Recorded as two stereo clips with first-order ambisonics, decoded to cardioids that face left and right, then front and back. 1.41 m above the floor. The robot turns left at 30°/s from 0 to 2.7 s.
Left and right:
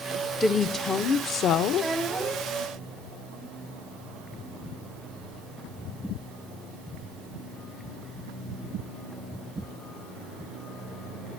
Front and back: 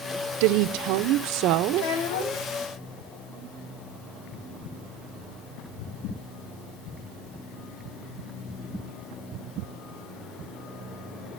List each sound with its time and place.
0.4 s a woman speaking: 175° left, 0.7 m; by 1.9 s 130° left, 0.7 m
1.7 s a child speaking: straight ahead, 4.5 m; by 2.5 s 20° right, 4.5 m